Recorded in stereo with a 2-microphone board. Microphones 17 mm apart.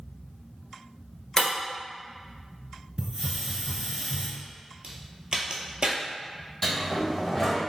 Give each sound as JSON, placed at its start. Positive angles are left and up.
{"t": 1.4, "sound": "breaking glass", "side_deg": 30, "distance_m": 1.1}
{"t": 3.0, "sound": "a hiss", "side_deg": -40, "distance_m": 1.1}
{"t": 4.8, "sound": "a crack", "side_deg": -45, "distance_m": 0.7}
{"t": 6.6, "sound": "a sliding door", "side_deg": 15, "distance_m": 1.4}